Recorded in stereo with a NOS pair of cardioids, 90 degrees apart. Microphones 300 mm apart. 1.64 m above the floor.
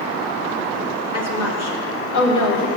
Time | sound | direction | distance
1.1 | a woman speaking | 60° left | 3 m